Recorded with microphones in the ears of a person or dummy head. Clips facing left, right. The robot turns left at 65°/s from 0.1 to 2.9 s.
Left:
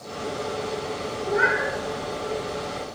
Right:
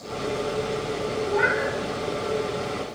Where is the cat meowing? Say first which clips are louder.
Left 2 dB; 160° left, 1.8 m; by 1.7 s 130° left, 1.8 m.